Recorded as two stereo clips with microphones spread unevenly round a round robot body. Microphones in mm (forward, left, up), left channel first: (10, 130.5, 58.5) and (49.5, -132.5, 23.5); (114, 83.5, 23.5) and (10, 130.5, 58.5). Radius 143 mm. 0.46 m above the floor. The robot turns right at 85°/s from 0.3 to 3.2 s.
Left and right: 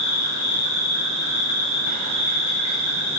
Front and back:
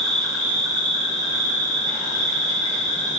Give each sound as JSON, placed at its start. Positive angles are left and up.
{"t": 0.0, "sound": "an insect", "azimuth_deg": 55, "distance_m": 1.1}